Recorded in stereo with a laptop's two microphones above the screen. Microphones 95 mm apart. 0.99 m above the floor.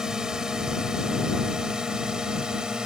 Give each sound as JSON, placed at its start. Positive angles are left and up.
{"t": 0.0, "sound": "a drone", "side_deg": -5}